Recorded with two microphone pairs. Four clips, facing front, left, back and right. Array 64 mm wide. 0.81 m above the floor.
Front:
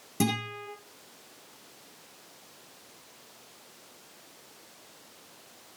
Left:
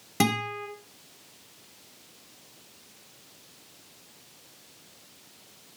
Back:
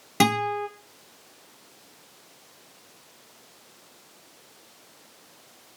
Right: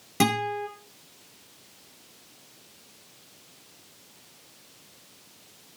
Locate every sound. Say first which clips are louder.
0.2 s a guitar: right 2 dB, back 8 dB; straight behind, 5.5 m